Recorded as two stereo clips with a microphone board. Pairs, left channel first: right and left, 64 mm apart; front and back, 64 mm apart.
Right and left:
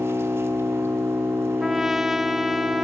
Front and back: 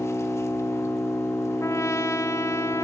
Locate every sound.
0.0 s an engine running: 40° left, 1.6 m
1.6 s a trumpet: 5° left, 0.7 m